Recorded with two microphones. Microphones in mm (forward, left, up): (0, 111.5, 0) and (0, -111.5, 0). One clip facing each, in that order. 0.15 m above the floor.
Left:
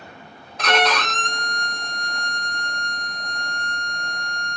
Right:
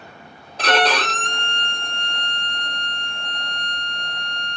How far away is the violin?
About 0.7 m.